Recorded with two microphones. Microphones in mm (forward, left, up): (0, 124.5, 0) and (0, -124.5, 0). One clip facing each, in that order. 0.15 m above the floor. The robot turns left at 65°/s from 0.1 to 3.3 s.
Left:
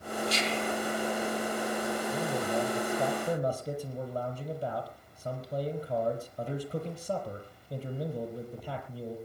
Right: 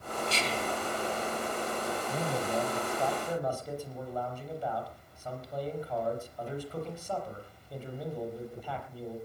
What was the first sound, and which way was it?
Whispering, 35° right.